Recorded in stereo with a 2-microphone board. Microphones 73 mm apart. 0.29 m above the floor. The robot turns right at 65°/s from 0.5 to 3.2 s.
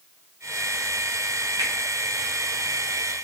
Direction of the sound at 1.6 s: 70° right (ahead or behind).